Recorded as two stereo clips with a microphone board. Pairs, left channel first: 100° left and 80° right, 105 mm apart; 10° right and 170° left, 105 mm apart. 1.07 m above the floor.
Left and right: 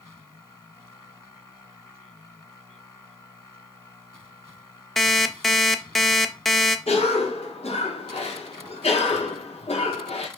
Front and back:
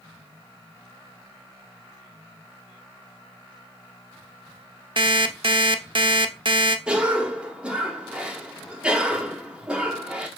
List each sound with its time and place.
5.0 s an alarm clock: 170° right, 0.6 m
6.9 s a cough: 90° left, 1.8 m